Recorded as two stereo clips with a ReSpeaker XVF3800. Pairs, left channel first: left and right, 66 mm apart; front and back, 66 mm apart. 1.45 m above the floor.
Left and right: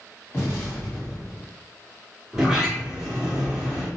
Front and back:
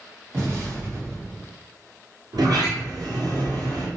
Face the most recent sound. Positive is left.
turn(degrees=-175)